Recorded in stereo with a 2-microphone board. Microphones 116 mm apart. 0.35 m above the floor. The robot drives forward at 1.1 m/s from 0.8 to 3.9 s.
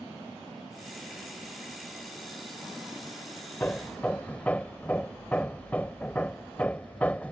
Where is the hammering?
15° left (ahead or behind).